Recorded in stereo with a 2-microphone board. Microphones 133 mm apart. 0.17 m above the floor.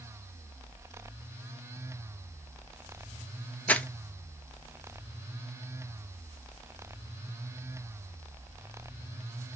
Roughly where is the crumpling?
Centre.